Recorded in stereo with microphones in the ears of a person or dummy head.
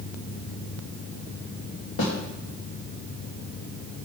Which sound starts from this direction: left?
A snare drum, at 2.0 s.